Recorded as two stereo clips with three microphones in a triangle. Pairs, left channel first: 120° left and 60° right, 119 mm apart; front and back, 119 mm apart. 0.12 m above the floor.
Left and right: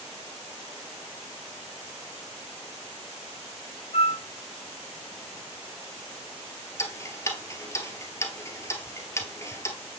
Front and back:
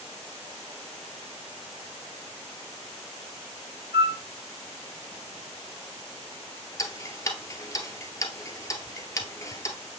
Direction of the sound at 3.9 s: 145° left.